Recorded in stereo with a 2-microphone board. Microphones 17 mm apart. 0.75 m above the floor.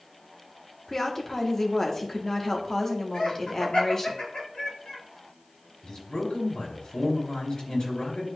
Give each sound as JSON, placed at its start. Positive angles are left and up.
{"t": 0.9, "sound": "a woman speaking", "side_deg": 25, "distance_m": 1.3}
{"t": 3.1, "sound": "laughter", "side_deg": 75, "distance_m": 4.0}
{"t": 5.8, "sound": "a man speaking", "side_deg": 65, "distance_m": 3.5}